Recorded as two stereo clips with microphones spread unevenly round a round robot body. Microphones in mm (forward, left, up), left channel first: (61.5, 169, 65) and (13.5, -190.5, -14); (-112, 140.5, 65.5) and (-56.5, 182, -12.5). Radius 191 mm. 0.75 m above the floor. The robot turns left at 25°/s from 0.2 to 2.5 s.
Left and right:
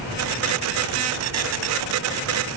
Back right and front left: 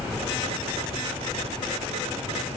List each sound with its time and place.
Only background noise.